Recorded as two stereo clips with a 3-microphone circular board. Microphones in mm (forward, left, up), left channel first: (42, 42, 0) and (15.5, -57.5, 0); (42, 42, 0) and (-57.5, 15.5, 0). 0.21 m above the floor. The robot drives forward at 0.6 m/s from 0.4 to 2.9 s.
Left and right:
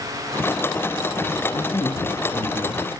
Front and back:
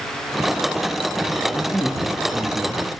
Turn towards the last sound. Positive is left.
turn(degrees=135)